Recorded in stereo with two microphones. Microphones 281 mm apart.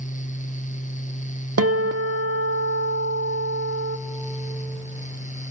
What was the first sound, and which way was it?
A guitar, 55° right (ahead or behind).